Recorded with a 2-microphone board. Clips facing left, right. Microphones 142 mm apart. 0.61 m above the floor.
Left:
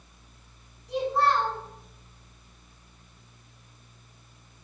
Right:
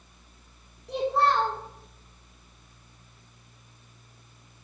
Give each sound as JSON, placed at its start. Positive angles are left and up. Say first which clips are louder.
{"t": 0.9, "sound": "a child speaking", "louder": "even", "side_deg": -55, "distance_m": 1.2}